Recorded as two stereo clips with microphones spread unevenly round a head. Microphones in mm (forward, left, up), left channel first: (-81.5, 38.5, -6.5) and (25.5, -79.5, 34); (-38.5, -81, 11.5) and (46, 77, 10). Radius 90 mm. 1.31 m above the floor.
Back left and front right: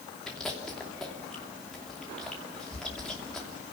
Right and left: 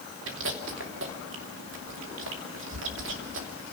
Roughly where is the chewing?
Ahead left.